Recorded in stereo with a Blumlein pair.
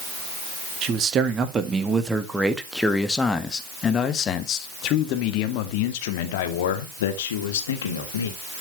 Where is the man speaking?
30° right, 2.0 m; by 8.3 s 65° left, 3 m.